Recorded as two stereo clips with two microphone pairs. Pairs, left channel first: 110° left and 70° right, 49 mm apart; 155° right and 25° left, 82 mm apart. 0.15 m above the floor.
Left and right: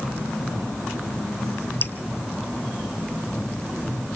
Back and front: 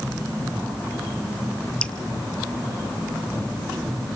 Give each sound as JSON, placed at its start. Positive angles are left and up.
{"t": 1.8, "sound": "dripping", "azimuth_deg": 135, "distance_m": 0.6}